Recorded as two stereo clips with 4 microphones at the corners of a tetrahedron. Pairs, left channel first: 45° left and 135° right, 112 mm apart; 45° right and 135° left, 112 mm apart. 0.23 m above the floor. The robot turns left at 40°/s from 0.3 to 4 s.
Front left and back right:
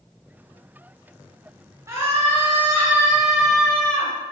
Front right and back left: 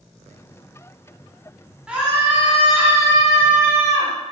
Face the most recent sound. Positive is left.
turn(degrees=120)